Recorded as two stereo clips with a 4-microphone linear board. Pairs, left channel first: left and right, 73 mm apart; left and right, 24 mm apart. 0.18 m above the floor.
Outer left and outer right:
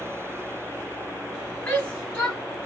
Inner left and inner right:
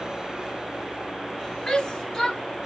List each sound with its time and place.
1.7 s a shout: 20° left (ahead or behind), 1.0 m